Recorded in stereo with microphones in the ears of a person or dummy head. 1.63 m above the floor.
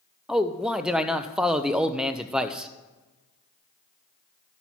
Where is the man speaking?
5° right (ahead or behind), 0.5 m.